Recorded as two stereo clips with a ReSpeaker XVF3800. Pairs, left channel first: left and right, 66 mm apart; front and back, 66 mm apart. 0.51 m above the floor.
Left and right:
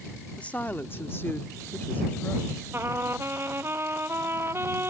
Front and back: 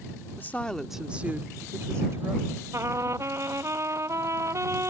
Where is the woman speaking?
30° left; by 2.6 s 150° left.